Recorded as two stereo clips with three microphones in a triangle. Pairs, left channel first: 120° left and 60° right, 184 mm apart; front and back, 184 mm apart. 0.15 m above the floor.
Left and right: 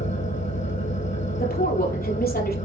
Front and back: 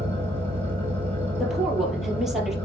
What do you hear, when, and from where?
0.0 s an engine running: 120° left, 5 m
1.4 s a woman speaking: 90° left, 3.5 m